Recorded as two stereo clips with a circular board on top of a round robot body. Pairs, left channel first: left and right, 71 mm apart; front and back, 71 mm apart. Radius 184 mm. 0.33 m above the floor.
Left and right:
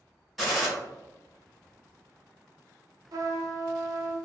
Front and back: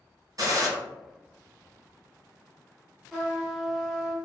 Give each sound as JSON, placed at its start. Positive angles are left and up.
{"t": 0.4, "sound": "a gunshot", "azimuth_deg": 180, "distance_m": 1.3}
{"t": 3.1, "sound": "a trumpet", "azimuth_deg": -95, "distance_m": 0.9}